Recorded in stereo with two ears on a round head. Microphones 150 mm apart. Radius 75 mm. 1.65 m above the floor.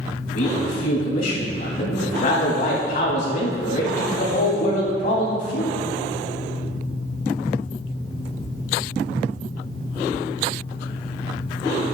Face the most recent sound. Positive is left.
turn(degrees=45)  # may be behind; listen again after turning